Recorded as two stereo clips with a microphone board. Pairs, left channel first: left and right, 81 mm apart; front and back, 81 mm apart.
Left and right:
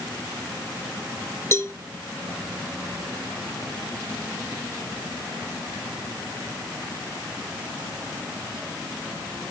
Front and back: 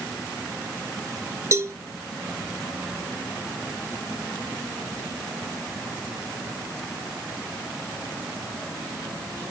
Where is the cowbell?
135° left, 1.2 m.